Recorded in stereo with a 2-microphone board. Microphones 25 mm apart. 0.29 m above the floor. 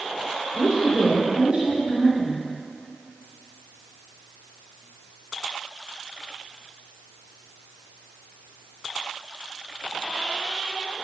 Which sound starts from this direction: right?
A woman speaking, at 0.5 s.